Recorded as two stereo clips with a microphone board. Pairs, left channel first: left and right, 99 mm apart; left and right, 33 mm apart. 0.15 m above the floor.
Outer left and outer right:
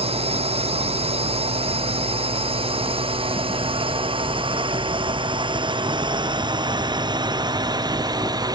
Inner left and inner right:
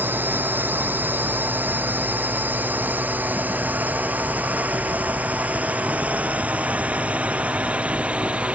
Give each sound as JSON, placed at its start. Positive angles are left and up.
{"t": 0.0, "sound": "a drone", "side_deg": -80}